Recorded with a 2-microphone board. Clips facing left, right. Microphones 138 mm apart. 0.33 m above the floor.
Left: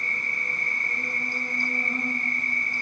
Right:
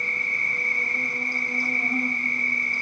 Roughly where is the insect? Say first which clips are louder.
Right 1 dB; right.